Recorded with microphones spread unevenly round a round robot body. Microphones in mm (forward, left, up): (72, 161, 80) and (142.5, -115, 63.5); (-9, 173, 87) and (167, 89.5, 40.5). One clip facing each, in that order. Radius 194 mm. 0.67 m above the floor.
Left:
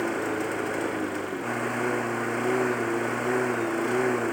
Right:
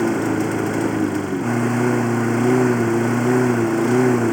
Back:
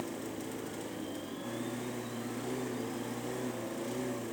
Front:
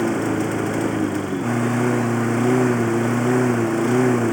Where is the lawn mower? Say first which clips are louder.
Right 9 dB, front 19 dB; 45° right.